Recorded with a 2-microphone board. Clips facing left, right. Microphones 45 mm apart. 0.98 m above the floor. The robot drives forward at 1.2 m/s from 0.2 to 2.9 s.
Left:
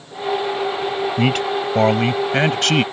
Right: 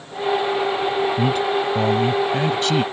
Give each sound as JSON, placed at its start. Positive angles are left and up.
{"t": 1.2, "sound": "a man speaking", "side_deg": 85}